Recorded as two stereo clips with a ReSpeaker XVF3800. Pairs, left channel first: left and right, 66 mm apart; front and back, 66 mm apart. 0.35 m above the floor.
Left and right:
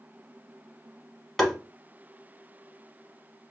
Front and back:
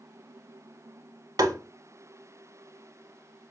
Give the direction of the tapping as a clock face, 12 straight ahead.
6 o'clock.